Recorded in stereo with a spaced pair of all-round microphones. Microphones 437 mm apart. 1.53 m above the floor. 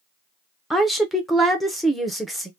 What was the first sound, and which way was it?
A woman speaking, centre (ahead or behind).